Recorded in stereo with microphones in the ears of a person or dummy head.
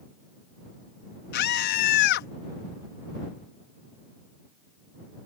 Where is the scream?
55° left (ahead or behind).